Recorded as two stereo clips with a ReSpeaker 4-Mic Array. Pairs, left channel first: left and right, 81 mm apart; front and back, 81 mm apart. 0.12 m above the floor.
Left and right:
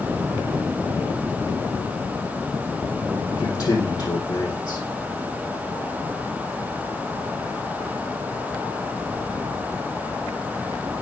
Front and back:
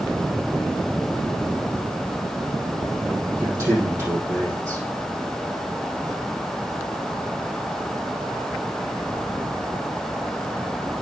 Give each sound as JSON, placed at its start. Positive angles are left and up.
{"t": 3.3, "sound": "a man speaking", "azimuth_deg": 125, "distance_m": 4.5}